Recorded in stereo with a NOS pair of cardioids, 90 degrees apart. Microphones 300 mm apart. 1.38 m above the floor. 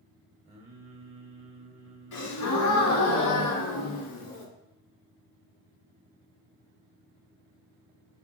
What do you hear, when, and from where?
0.5 s singing: 20° right, 0.9 m
2.1 s a gasp: 65° left, 1.6 m